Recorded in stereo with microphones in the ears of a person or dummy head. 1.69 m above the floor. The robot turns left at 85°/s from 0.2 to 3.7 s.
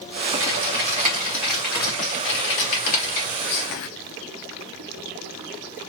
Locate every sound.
0.4 s typing on a keyboard: 90° right, 1.6 m; by 3.3 s 25° left, 1.6 m
3.4 s whispering: 45° left (ahead or behind), 0.7 m; by 3.9 s 65° left (ahead or behind), 0.7 m